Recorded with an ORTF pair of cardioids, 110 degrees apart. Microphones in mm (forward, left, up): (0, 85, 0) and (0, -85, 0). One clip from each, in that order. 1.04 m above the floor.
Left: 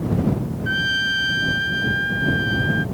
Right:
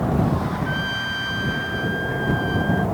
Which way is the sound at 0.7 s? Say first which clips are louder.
Left 9 dB; 35° left.